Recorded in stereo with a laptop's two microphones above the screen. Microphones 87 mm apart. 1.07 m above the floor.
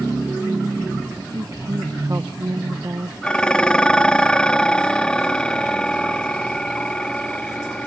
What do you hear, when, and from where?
1.3 s a woman speaking: 45° right (ahead or behind)
3.2 s dishes clattering: 10° left (ahead or behind)